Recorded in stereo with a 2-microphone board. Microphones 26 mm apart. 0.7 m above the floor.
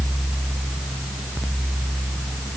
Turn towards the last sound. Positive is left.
No sound to turn to.